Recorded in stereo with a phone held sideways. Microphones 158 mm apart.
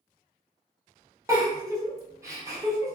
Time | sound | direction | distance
1.3 | a giggle | 20° right (ahead or behind) | 1.4 m